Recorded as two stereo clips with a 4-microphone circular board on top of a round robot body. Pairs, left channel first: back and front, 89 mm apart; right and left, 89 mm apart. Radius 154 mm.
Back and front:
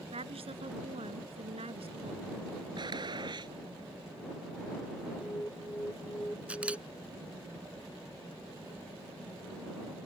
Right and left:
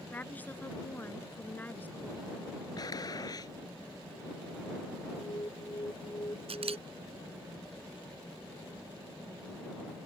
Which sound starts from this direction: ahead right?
A gunshot, at 2.8 s.